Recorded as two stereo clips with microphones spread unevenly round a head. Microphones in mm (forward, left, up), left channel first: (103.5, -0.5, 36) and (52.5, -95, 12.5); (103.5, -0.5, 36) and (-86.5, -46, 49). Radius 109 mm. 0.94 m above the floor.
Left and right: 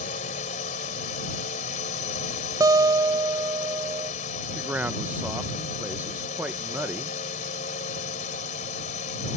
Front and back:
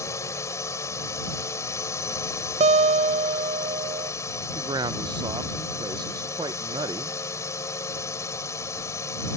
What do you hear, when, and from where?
0.0 s a drone: 90° left
2.6 s a guitar: 120° right
4.5 s a man speaking: 115° right